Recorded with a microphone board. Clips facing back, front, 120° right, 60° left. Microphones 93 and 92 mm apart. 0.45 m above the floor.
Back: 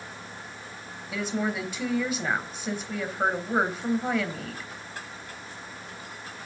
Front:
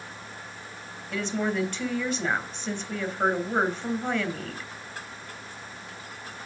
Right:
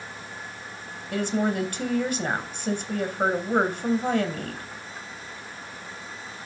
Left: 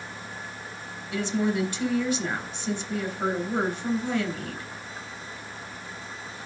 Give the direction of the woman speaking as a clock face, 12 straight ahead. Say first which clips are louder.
Front 1 dB, right 1 dB; 3 o'clock.